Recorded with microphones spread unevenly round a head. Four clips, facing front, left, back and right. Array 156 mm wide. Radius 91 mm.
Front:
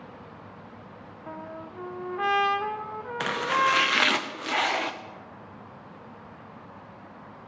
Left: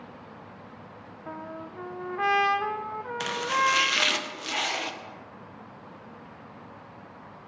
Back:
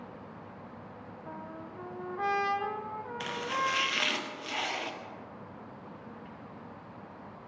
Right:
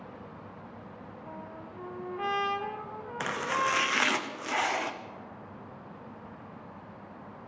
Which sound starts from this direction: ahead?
Chopping, at 3.2 s.